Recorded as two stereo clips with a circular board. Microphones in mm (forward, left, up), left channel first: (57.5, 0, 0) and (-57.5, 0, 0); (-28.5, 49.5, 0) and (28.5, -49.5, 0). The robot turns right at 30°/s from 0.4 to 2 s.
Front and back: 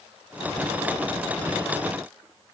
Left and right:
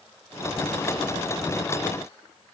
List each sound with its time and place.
Only background noise.